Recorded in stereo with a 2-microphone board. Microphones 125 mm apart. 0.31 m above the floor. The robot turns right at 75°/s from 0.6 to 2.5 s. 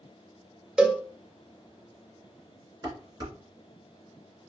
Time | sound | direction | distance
0.8 | a cowbell | 5° right (ahead or behind) | 0.6 m
2.8 | dishes clattering | 35° right (ahead or behind) | 2.0 m